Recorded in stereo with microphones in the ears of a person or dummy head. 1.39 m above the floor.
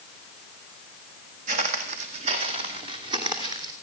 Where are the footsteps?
45° right (ahead or behind), 3 m; by 3.7 s 25° right (ahead or behind), 3 m.